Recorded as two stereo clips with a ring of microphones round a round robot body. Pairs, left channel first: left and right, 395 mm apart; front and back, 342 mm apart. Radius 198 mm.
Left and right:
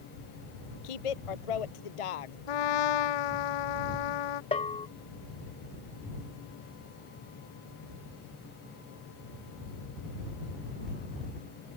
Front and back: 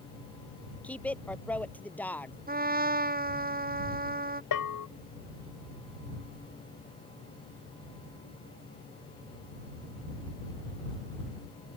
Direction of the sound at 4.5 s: 15° left.